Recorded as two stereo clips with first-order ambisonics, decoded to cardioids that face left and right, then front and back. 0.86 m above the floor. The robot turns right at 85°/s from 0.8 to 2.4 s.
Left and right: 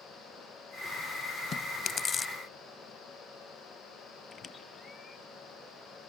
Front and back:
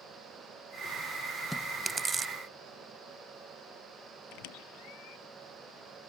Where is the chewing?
75° left; by 2.3 s 145° left.